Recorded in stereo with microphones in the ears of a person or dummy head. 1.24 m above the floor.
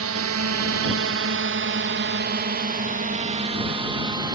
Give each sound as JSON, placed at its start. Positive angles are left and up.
{"t": 0.0, "sound": "a drone", "side_deg": -65}